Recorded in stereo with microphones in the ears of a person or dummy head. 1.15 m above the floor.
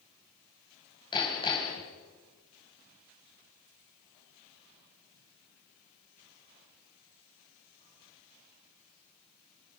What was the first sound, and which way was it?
Hammering, 20° left (ahead or behind).